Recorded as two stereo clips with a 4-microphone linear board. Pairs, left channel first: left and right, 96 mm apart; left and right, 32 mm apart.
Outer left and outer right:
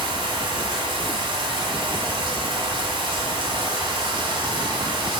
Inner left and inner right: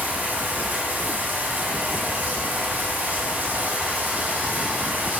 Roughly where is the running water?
Right.